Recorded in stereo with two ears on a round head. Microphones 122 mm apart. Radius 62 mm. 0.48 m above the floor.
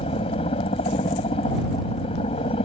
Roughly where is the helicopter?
Left.